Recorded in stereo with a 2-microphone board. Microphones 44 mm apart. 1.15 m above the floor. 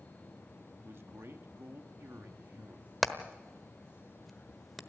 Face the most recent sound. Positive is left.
turn(degrees=0)  # may be behind; listen again after turning